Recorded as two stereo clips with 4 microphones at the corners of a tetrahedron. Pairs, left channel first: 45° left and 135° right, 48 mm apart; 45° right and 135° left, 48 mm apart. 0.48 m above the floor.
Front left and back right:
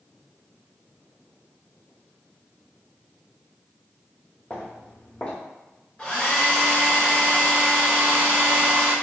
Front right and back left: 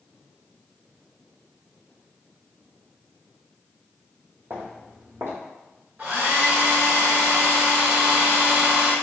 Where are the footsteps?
110° left, 1.0 m.